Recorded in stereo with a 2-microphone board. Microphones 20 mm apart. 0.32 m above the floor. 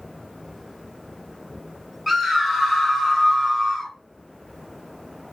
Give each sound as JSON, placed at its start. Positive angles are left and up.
{"t": 2.1, "sound": "a scream", "side_deg": -10, "distance_m": 1.9}